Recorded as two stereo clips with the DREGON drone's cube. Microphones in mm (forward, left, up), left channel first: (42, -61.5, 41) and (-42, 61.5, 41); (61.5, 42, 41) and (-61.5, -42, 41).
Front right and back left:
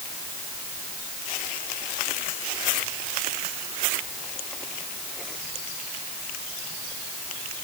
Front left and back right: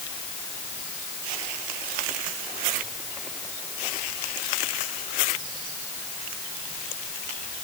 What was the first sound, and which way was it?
Only background noise.